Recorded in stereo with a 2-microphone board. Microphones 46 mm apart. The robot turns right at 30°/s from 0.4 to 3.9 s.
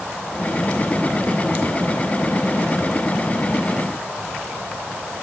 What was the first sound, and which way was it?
Only background noise.